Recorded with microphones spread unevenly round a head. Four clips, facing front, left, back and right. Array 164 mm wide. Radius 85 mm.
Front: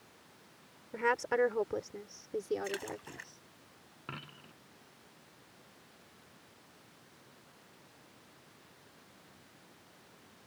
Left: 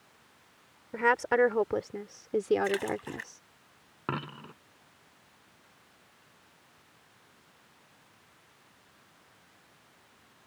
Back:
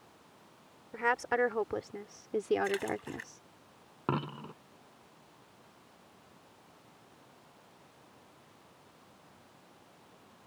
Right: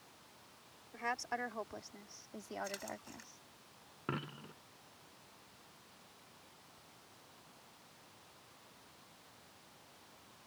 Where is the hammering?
I don't hear hammering.